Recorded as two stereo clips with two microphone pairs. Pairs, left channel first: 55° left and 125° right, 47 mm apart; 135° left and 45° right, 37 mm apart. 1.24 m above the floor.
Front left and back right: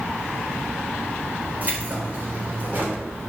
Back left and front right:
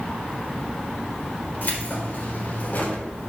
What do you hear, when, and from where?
1.6 s keys jangling: straight behind, 4 m; by 3.0 s 175° right, 3 m